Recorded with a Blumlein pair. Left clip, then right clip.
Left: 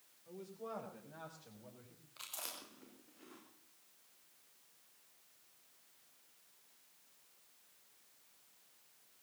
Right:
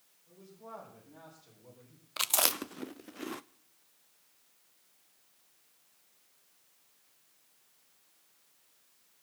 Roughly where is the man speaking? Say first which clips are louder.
Left 2 dB; ahead left.